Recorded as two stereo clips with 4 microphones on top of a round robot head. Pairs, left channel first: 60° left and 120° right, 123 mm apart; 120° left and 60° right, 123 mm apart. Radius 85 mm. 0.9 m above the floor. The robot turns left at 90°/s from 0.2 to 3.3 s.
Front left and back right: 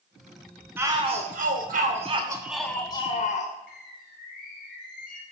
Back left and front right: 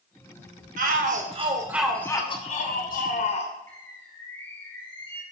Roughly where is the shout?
Ahead right.